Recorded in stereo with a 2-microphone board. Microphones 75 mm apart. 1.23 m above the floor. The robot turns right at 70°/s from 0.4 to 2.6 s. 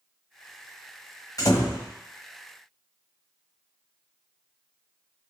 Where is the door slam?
50° left, 1.2 m; by 1.9 s 85° left, 1.2 m.